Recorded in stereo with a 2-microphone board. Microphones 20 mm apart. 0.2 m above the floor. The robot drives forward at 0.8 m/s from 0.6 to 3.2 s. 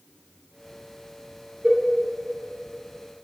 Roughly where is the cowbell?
Right.